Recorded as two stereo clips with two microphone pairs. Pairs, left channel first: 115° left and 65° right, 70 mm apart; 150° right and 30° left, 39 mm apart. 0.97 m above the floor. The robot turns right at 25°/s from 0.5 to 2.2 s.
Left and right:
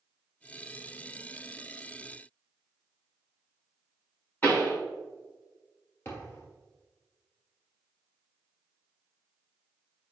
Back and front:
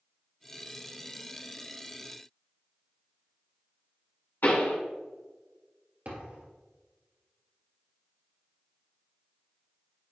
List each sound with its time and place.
4.4 s a pop: straight behind, 3 m
6.0 s a thud: 60° left, 2 m